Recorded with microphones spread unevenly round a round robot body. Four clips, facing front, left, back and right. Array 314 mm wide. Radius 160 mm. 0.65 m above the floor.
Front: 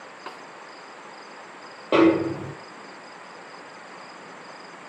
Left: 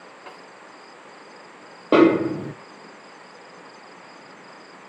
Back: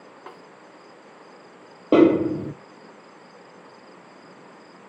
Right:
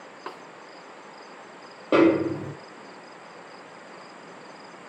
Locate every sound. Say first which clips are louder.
0.3 s a snare drum: right 5 dB, front 3 dB; 90° right, 2 m
1.9 s a snare drum: left 3 dB, back 2 dB; 145° left, 0.7 m